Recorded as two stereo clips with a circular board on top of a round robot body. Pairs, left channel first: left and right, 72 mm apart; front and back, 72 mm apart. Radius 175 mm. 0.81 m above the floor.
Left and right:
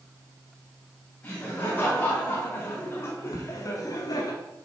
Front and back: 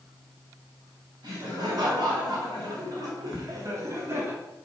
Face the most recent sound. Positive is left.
turn(degrees=105)